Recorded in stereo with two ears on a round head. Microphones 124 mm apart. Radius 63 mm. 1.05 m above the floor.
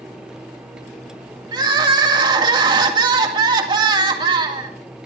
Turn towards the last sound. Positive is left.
turn(degrees=-35)  # may be behind; listen again after turning